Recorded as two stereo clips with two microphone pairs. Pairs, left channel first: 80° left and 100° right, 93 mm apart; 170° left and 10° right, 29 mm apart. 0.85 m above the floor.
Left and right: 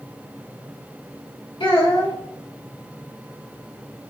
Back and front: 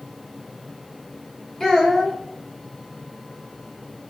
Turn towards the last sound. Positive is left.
turn(degrees=100)